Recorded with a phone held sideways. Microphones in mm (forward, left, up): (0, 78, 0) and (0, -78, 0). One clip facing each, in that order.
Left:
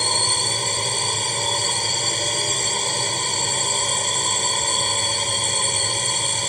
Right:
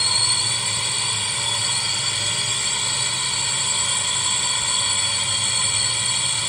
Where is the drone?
40° left (ahead or behind).